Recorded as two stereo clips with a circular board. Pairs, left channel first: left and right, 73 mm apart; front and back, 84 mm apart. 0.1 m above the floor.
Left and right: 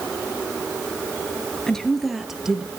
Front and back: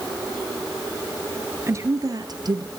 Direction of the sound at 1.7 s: 165° left.